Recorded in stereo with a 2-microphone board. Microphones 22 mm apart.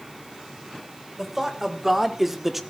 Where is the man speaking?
15° right (ahead or behind), 2.5 m; by 2.6 s 10° right (ahead or behind), 1.0 m.